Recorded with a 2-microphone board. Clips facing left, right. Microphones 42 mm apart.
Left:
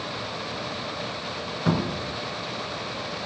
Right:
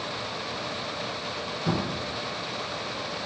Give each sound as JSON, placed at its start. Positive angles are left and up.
{"t": 1.7, "sound": "a cupboard door", "side_deg": 45, "distance_m": 0.6}